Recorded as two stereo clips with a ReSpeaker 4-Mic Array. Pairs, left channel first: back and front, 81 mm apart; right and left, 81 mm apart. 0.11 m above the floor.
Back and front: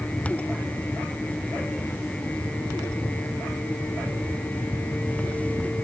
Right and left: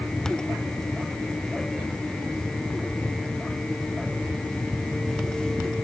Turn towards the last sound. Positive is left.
No sound to turn to.